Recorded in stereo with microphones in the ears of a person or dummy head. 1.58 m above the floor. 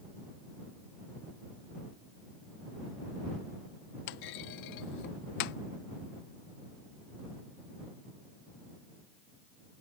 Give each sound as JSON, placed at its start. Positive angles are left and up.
{"t": 4.1, "sound": "a clunk", "side_deg": 50}